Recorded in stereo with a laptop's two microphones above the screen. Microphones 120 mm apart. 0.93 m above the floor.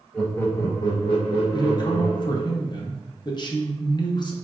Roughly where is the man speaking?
Left.